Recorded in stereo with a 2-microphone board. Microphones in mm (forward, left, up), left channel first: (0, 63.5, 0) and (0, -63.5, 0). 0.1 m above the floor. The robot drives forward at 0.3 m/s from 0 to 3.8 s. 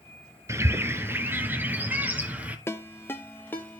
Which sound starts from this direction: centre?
A ringtone, at 2.7 s.